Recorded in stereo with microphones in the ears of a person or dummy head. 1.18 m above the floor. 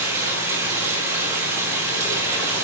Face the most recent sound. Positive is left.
turn(degrees=-15)  # may be behind; listen again after turning